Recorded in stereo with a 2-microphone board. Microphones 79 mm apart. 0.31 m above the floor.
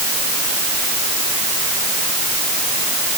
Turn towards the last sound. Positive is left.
No sound to turn to.